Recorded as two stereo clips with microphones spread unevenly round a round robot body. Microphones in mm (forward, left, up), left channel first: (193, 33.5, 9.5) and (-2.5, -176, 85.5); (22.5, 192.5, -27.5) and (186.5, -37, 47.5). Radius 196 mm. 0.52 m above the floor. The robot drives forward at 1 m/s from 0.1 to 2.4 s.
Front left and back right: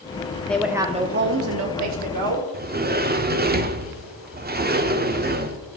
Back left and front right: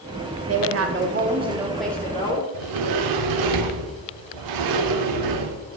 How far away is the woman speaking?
About 1.0 m.